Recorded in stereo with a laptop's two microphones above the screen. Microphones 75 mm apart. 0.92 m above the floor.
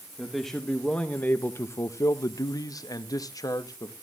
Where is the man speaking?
Centre (ahead or behind), 1.0 m; by 3.9 s 50° left (ahead or behind), 1.3 m.